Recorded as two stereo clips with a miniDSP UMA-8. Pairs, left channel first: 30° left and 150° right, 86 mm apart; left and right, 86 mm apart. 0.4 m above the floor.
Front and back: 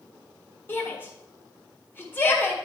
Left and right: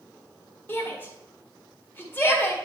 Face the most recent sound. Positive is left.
turn(degrees=65)